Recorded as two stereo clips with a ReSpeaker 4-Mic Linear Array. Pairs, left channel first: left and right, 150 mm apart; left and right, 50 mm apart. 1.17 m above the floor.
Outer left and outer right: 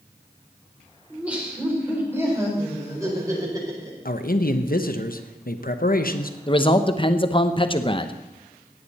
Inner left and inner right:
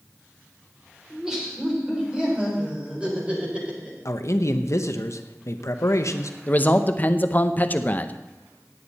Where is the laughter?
10° right (ahead or behind), 4.5 m; by 4.0 s 25° right (ahead or behind), 5.5 m.